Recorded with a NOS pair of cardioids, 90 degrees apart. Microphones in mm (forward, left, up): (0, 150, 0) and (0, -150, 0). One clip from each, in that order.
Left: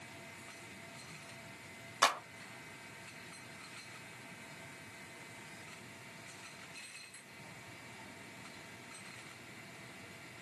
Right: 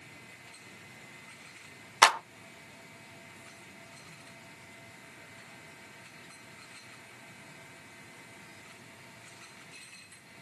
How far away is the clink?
I don't hear a clink.